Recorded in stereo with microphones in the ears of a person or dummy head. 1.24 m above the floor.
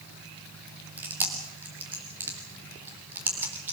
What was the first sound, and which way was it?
Chewing, 10° right (ahead or behind).